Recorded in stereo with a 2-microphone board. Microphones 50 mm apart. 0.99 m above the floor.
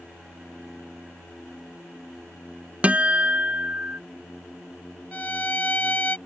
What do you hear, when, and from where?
2.8 s a guitar: 30° right (ahead or behind)
5.1 s a violin: 35° left (ahead or behind)